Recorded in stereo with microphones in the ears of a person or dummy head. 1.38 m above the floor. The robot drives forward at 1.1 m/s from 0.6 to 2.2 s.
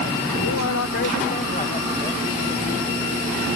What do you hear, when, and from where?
0.4 s a man speaking: 90° left, 0.7 m; by 3.2 s 20° left (ahead or behind), 1.9 m